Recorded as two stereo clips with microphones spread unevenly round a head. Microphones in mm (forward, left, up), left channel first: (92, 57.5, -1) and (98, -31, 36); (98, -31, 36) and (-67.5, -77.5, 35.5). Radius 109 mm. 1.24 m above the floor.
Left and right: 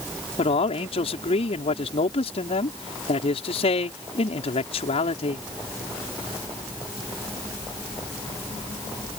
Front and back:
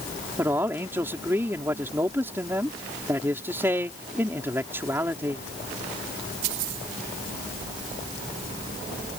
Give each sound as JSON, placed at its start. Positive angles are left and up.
{"t": 0.4, "sound": "a man speaking", "azimuth_deg": 115}